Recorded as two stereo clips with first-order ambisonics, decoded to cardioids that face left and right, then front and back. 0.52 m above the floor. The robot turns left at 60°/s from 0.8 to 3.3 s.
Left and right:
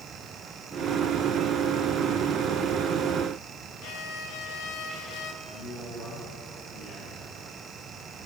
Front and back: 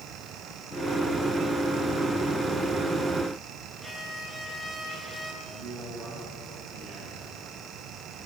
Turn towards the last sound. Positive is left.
turn(degrees=130)